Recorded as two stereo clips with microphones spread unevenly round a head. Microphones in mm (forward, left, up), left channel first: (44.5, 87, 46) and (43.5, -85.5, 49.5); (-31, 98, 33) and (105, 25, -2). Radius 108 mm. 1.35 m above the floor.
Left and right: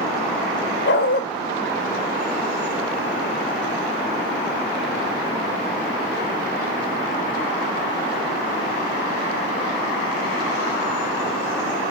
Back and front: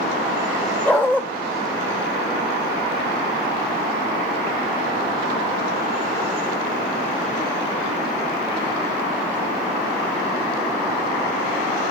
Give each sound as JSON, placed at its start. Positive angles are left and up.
{"t": 0.8, "sound": "a dog barking", "azimuth_deg": 80, "distance_m": 1.8}